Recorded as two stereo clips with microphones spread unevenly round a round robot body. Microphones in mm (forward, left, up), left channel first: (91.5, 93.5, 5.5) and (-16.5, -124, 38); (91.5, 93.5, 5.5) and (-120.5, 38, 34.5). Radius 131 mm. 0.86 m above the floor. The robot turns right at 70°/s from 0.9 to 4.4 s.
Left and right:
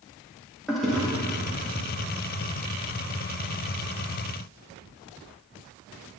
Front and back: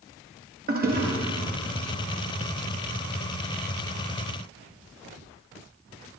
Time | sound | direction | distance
0.7 | a toilet flushing | 150° left | 1.7 m